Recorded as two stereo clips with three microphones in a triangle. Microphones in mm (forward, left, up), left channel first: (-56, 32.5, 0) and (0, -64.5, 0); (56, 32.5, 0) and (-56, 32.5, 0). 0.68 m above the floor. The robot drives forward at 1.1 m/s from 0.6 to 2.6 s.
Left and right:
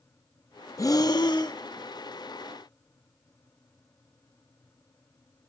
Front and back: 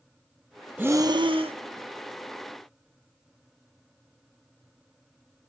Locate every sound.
0.8 s breathing: 120° left, 0.7 m; by 1.6 s 165° left, 1.3 m